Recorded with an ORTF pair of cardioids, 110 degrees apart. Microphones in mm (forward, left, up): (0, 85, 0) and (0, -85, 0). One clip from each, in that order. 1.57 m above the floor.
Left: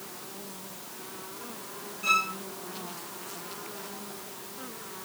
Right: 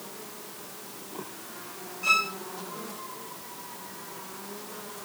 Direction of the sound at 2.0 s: 15° right.